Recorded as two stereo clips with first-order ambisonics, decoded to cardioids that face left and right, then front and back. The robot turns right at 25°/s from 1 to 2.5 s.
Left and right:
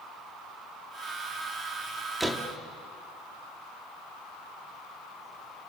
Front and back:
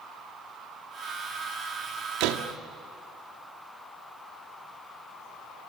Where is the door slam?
175° right, 1.6 m; by 2.5 s 165° right, 1.6 m.